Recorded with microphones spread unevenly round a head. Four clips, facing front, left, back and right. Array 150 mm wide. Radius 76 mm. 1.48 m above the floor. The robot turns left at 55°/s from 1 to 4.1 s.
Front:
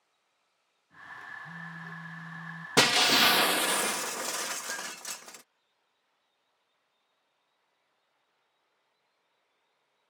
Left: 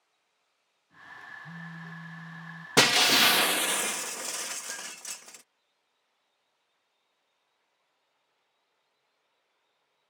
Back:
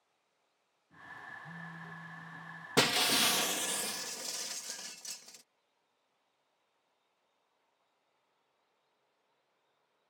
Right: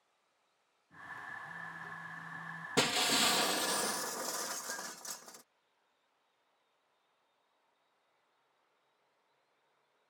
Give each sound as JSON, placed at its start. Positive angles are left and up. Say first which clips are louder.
{"t": 1.4, "sound": "a phone buzzing", "louder": "left 2 dB, front 4 dB", "azimuth_deg": 95}
{"t": 2.8, "sound": "breaking glass", "louder": "left 8 dB, front 6 dB", "azimuth_deg": 80}